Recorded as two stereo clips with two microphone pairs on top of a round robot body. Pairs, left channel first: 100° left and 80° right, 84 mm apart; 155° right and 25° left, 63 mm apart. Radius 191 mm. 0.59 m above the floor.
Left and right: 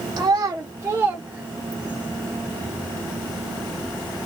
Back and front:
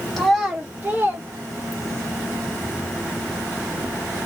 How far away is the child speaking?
About 0.7 m.